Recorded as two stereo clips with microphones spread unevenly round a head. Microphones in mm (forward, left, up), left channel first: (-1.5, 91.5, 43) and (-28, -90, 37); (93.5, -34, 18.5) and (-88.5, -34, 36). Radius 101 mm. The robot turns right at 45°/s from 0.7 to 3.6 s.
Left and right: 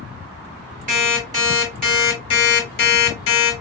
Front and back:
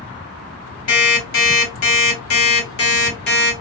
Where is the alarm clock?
45° right, 3 m; by 3.5 s 70° left, 3 m.